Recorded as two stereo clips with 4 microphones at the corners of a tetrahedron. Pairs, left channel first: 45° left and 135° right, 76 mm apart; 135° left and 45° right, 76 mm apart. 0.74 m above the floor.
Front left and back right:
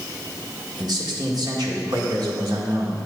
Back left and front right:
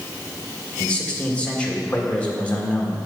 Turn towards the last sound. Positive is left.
turn(degrees=-155)